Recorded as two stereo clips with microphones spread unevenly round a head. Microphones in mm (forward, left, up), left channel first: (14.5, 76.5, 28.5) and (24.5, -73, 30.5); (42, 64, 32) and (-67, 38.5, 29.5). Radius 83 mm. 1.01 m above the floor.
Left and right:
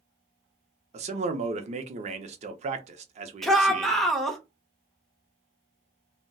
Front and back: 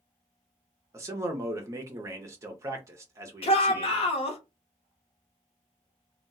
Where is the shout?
5° left, 0.8 m.